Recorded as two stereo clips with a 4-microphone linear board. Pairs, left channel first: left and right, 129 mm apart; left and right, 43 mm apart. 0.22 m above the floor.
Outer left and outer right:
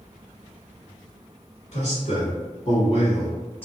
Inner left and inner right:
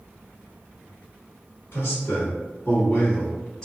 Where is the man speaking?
50° left (ahead or behind), 1.5 m; by 3.6 s 15° left (ahead or behind), 1.2 m.